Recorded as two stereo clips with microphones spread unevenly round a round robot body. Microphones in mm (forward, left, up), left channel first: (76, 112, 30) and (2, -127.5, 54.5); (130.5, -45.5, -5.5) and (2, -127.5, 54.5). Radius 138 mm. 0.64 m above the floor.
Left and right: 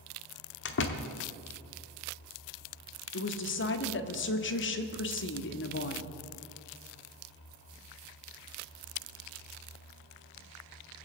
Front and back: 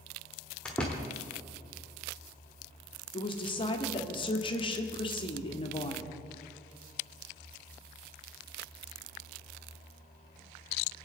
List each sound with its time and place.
0.7 s a door slam: 110° left, 1.0 m
3.1 s a woman speaking: 60° left, 1.3 m